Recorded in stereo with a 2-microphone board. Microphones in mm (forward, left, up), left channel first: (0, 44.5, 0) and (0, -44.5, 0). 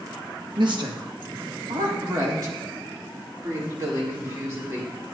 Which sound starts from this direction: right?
A woman speaking, at 0.6 s.